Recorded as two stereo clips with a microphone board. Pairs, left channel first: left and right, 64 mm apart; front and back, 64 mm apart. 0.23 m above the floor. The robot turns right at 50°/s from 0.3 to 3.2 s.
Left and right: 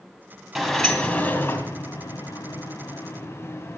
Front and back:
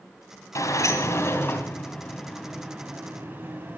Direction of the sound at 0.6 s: Straight ahead.